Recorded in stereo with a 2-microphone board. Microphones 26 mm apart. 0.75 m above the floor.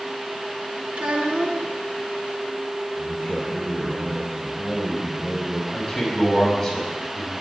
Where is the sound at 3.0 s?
25° right (ahead or behind), 3 m.